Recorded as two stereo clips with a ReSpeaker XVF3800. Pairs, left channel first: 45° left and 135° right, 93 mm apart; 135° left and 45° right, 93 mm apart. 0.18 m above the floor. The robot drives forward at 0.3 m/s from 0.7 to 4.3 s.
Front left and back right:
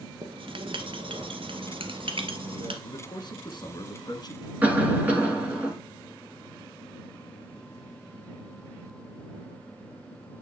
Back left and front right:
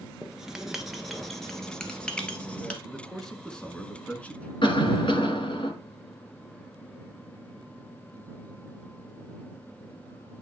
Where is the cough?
150° left, 2.5 m.